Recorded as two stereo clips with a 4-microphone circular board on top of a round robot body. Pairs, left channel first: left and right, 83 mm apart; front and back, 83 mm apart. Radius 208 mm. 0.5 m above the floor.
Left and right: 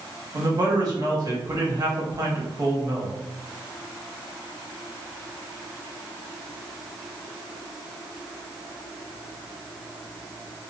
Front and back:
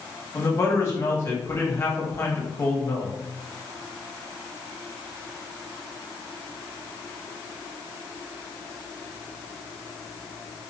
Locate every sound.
0.3 s a man speaking: 55° right, 1.6 m